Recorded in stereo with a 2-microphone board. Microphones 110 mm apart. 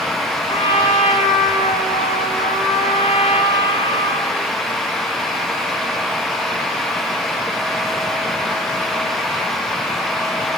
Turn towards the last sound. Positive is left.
turn(degrees=70)  # may be behind; listen again after turning